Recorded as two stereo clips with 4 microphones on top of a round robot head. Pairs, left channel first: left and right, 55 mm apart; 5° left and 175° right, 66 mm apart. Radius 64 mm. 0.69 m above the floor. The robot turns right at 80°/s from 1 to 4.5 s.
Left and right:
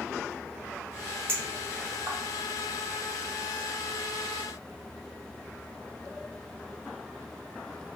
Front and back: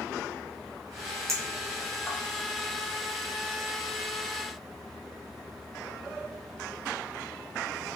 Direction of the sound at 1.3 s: 135° right.